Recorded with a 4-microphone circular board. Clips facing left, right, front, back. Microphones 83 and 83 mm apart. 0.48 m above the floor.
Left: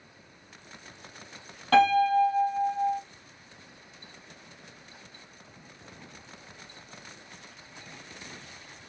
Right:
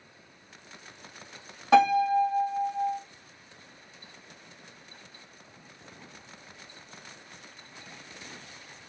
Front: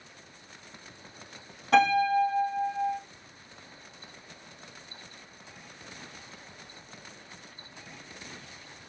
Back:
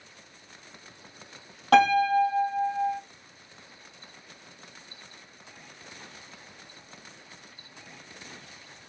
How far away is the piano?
About 2.5 m.